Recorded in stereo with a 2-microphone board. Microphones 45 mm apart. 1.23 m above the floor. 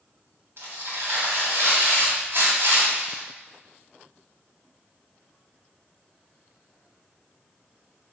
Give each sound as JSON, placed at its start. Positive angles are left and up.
{"t": 0.6, "sound": "tearing paper", "side_deg": -55, "distance_m": 3.0}